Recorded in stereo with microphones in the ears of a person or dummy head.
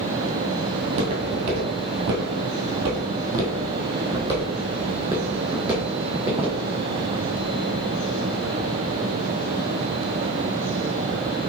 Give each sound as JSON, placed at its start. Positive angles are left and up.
{"t": 0.8, "sound": "footsteps", "side_deg": -30, "distance_m": 1.8}